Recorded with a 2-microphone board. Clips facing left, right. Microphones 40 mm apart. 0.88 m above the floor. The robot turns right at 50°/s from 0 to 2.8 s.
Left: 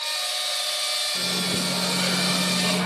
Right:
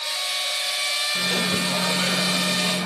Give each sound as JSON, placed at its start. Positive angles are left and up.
{"t": 1.1, "sound": "a microwave", "azimuth_deg": -60, "distance_m": 0.6}